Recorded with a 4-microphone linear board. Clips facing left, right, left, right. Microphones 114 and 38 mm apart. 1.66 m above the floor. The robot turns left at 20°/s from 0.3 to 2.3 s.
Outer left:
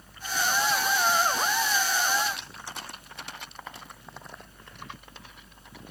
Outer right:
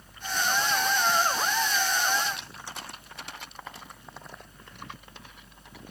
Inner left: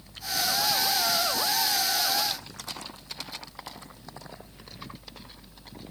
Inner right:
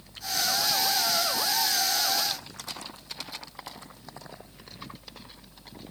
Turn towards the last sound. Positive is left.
No sound to turn to.